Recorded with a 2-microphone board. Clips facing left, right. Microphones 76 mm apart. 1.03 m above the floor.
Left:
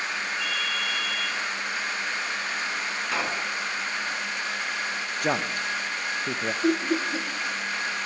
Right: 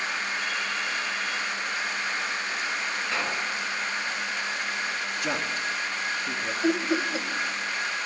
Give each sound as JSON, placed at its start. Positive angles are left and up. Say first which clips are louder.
{"t": 0.4, "sound": "a ringtone", "louder": "even", "side_deg": 60, "distance_m": 8.5}
{"t": 3.0, "sound": "a pop", "louder": "left 2 dB", "side_deg": 20, "distance_m": 1.5}
{"t": 5.2, "sound": "a man speaking", "louder": "left 4 dB", "side_deg": 45, "distance_m": 0.8}
{"t": 6.6, "sound": "laughter", "louder": "even", "side_deg": -10, "distance_m": 0.8}